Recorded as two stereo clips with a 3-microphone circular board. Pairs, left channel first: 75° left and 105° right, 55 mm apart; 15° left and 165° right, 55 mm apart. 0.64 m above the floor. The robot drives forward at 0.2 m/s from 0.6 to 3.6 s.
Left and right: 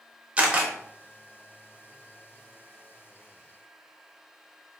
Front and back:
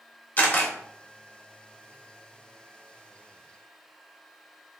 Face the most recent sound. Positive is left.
turn(degrees=-130)